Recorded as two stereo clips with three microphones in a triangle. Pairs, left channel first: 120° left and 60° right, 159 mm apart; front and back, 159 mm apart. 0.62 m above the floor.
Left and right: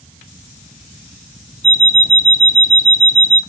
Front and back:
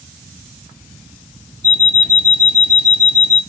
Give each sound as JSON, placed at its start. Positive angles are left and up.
{"t": 1.6, "sound": "an alarm clock", "azimuth_deg": -10, "distance_m": 0.8}